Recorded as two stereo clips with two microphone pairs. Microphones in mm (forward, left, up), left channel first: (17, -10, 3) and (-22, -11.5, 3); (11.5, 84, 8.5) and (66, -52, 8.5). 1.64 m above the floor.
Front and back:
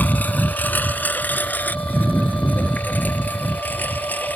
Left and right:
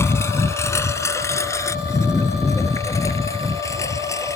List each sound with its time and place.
0.0 s a lawn mower: 40° left